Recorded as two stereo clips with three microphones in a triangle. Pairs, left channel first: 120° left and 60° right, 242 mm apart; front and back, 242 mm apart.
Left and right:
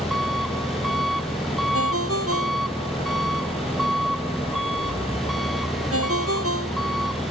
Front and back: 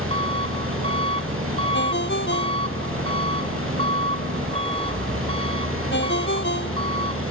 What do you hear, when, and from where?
0.0 s an engine running: 150° right
1.7 s a ringtone: 40° right